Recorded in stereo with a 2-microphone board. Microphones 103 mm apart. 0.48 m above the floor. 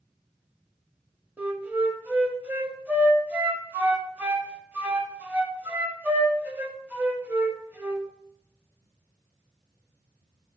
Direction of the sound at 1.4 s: 20° right (ahead or behind).